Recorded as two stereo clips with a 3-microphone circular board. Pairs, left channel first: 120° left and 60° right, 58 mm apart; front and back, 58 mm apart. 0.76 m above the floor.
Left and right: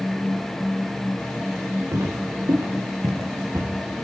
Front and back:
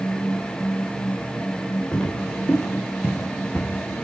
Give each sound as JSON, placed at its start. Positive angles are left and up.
{"t": 1.9, "sound": "footsteps", "azimuth_deg": -80, "distance_m": 6.0}